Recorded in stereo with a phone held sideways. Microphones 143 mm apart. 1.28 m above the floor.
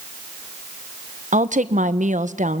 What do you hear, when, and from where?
1.3 s a woman speaking: 70° right (ahead or behind), 1.0 m